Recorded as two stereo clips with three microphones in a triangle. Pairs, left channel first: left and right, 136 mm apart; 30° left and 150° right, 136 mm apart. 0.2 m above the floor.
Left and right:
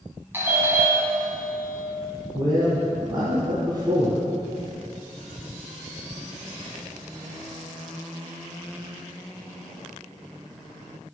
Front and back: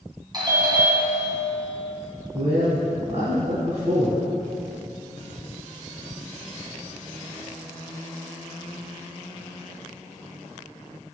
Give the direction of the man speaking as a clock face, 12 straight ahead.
5 o'clock.